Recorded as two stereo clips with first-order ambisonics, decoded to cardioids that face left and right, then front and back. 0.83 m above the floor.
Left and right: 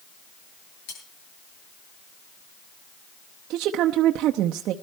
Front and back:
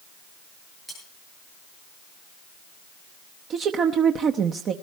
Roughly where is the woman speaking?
Behind right.